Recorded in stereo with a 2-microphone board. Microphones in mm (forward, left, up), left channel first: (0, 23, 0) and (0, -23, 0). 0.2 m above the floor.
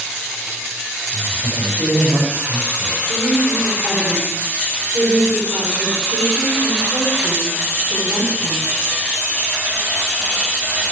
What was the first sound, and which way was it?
A man speaking, 60° right (ahead or behind).